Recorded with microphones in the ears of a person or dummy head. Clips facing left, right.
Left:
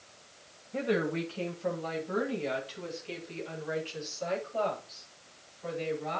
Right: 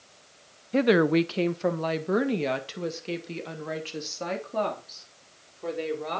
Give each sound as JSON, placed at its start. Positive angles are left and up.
{"t": 0.7, "sound": "a woman speaking", "side_deg": -75, "distance_m": 0.7}